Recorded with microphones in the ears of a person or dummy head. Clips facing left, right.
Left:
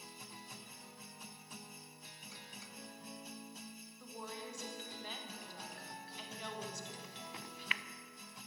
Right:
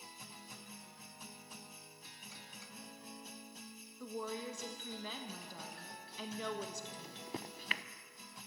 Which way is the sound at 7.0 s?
40° right (ahead or behind).